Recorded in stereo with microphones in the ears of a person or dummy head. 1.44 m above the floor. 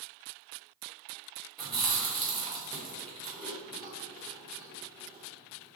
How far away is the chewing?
About 1.2 m.